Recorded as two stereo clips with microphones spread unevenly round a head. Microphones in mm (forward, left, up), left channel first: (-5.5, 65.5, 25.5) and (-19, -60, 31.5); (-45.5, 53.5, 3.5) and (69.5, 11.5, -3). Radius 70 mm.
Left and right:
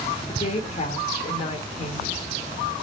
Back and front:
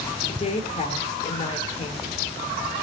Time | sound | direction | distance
0.3 | a woman speaking | 125° left | 2.5 m